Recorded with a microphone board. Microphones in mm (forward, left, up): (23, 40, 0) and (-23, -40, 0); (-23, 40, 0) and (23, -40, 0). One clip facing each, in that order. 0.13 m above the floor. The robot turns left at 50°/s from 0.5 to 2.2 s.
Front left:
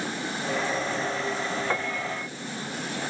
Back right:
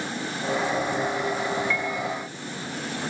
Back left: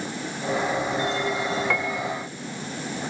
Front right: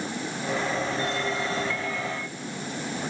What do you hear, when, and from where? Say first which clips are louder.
1.7 s a piano: back right 2 dB, back left 4 dB; 100° left; by 2.3 s 75° left